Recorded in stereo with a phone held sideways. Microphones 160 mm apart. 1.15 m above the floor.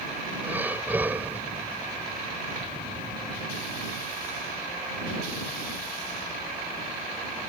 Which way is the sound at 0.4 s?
10° right (ahead or behind).